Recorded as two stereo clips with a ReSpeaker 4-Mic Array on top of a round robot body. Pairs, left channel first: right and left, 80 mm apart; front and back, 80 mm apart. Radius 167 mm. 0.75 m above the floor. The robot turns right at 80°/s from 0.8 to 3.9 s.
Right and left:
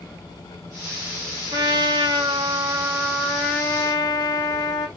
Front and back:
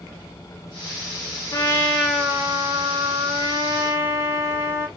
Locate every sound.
1.5 s a trumpet: 45° left, 1.0 m; by 4.9 s 120° right, 1.0 m